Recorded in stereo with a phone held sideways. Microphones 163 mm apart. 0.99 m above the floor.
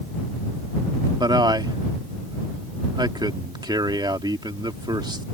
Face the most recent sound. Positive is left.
turn(degrees=-25)  # may be behind; listen again after turning